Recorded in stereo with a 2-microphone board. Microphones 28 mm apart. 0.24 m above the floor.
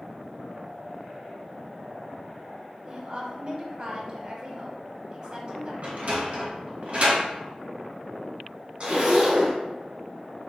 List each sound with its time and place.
2.8 s a woman speaking: 30° right (ahead or behind), 1.1 m
5.8 s a sliding door: 55° right (ahead or behind), 2.0 m
8.8 s a zipper: 45° right (ahead or behind), 1.7 m